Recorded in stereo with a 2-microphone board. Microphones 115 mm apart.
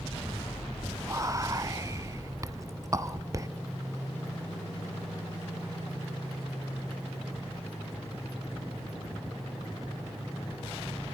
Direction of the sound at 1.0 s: 30° right (ahead or behind).